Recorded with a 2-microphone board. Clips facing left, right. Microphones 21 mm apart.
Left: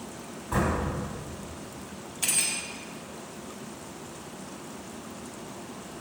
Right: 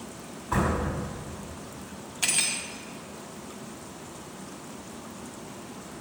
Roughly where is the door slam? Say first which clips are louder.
Right 1 dB; centre.